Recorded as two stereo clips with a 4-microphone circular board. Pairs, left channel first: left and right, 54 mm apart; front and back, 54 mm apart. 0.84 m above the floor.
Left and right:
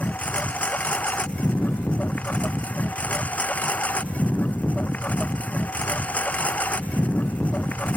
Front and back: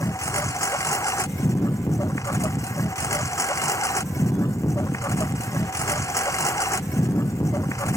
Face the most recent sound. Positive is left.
turn(degrees=25)